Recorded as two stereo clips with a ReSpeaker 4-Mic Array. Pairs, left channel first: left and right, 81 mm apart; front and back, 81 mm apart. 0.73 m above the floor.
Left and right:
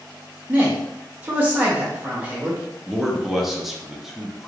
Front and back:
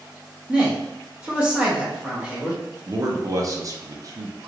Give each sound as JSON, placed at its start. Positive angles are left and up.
{"t": 0.5, "sound": "a man speaking", "azimuth_deg": -120, "distance_m": 1.1}
{"t": 2.9, "sound": "a man speaking", "azimuth_deg": -175, "distance_m": 0.6}